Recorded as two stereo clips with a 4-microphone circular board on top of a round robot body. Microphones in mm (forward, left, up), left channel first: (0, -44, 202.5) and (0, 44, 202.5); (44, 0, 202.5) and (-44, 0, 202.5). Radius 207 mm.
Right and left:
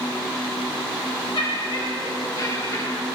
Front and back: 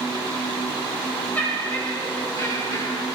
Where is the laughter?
70° right, 2.5 m; by 3.1 s 40° right, 4.5 m.